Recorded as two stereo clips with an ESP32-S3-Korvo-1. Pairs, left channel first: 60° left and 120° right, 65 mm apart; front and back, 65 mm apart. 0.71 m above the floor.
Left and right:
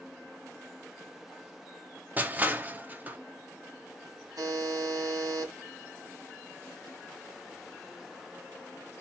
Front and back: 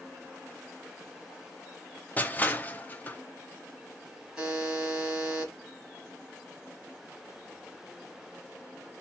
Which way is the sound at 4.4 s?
95° right.